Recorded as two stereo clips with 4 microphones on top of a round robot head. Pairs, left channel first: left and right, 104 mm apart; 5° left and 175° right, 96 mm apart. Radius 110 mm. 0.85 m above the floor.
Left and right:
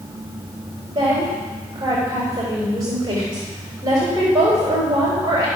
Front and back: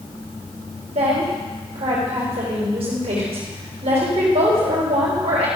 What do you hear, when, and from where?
0.9 s a woman speaking: 150° right, 4 m